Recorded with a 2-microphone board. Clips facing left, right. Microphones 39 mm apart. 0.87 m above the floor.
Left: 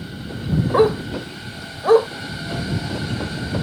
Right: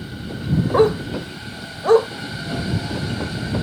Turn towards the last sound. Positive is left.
turn(degrees=10)  # may be behind; listen again after turning